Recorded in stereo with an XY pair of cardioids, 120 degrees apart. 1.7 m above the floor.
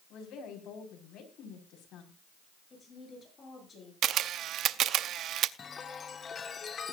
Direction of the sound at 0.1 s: 65° left.